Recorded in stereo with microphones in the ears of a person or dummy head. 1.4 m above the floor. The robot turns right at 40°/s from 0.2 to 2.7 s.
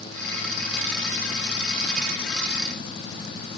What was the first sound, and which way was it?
Only background noise.